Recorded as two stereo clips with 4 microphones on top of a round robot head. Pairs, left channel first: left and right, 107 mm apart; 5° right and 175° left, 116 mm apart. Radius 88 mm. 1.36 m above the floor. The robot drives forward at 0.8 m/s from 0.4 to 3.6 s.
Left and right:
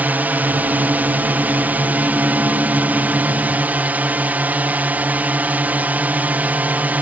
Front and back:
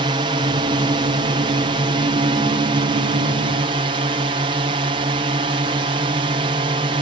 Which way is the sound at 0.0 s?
160° right.